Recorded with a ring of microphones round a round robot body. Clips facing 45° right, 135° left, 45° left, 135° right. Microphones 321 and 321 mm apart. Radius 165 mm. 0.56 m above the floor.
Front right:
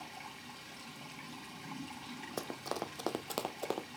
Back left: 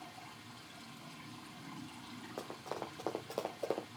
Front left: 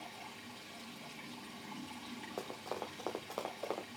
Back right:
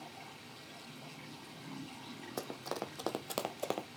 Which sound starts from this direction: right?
Running footsteps, at 2.4 s.